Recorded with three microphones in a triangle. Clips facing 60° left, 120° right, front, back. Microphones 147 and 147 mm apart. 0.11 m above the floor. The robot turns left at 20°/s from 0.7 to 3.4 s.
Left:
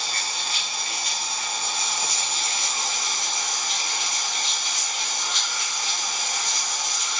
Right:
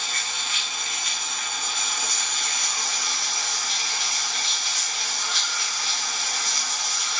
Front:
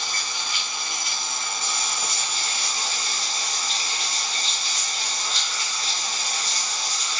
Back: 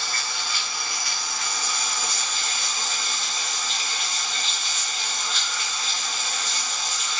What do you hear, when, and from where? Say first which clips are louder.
0.0 s running water: left 2 dB, back 1 dB; 60° left, 1.4 m; by 7.2 s 5° left, 1.4 m